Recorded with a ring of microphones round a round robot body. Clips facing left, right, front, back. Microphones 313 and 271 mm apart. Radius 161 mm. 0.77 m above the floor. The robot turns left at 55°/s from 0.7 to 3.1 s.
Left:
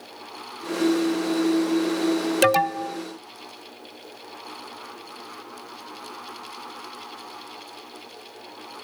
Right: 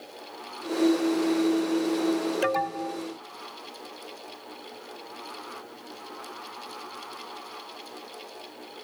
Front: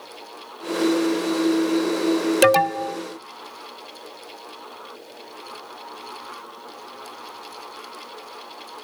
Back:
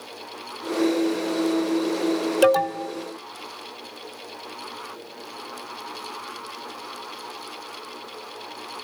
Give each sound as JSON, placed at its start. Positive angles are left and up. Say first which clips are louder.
{"t": 2.4, "sound": "an alarm", "louder": "left 6 dB, front 1 dB", "azimuth_deg": 60, "distance_m": 0.8}